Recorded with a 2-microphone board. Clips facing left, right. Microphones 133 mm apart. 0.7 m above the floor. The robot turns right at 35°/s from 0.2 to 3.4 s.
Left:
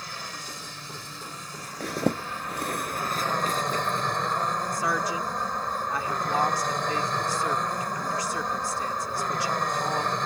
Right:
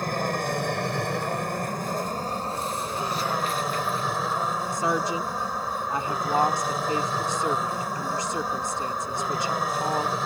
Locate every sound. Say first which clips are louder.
0.0 s an aircraft: right 13 dB; 115° right; by 10.3 s 5° right
1.8 s a zipper: left 1 dB; 75° left (ahead or behind); by 4.1 s 45° left (ahead or behind)
4.7 s a woman speaking: right 2 dB; 25° right (ahead or behind)